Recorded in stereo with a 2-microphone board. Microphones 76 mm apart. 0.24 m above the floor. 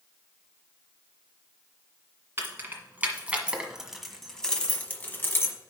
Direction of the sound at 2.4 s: 35° right (ahead or behind).